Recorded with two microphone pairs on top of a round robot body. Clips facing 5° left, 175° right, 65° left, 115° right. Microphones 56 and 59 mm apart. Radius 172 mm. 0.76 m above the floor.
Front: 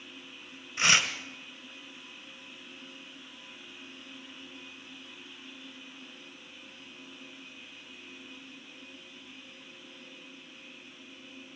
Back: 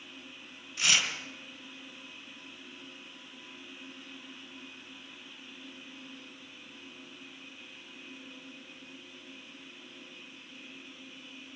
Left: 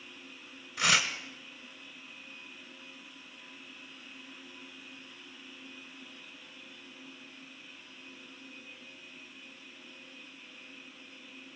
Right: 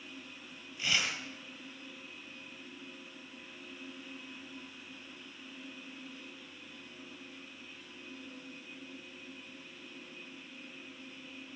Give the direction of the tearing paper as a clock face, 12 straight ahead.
10 o'clock.